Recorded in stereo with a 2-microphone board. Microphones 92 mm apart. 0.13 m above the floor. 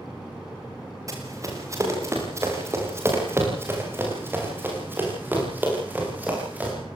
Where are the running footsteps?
35° right (ahead or behind), 9 m; by 6.7 s 15° right (ahead or behind), 13.5 m.